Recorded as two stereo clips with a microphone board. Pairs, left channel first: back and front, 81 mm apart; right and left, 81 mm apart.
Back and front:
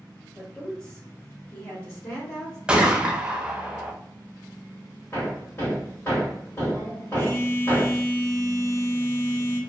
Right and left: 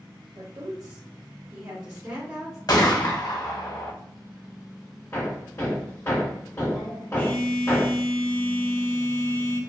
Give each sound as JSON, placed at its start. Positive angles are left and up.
{"t": 0.3, "sound": "a woman speaking", "azimuth_deg": 105, "distance_m": 1.3}
{"t": 2.7, "sound": "a gunshot", "azimuth_deg": -75, "distance_m": 0.6}
{"t": 5.1, "sound": "hammering", "azimuth_deg": -135, "distance_m": 1.4}
{"t": 7.2, "sound": "a phone buzzing", "azimuth_deg": -145, "distance_m": 0.6}